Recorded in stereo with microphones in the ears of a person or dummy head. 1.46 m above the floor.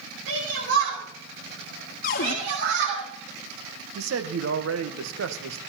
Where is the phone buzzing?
I don't hear a phone buzzing.